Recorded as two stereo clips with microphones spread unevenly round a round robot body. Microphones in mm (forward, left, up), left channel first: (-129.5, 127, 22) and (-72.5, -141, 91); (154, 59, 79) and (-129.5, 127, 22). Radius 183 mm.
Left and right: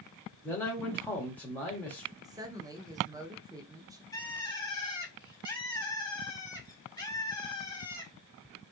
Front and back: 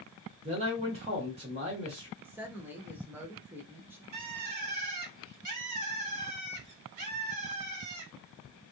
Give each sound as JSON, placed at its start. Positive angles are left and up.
{"t": 0.4, "sound": "a man speaking", "azimuth_deg": 155, "distance_m": 1.3}
{"t": 2.2, "sound": "a woman speaking", "azimuth_deg": -175, "distance_m": 0.7}
{"t": 4.1, "sound": "a bird", "azimuth_deg": 175, "distance_m": 1.3}